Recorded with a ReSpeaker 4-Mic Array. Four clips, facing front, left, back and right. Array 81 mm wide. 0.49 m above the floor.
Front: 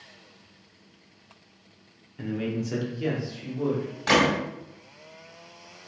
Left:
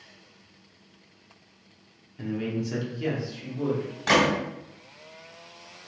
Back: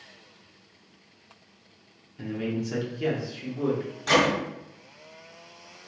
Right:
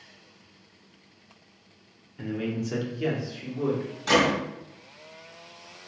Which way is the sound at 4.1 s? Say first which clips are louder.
Even, front 1 dB; 55° left.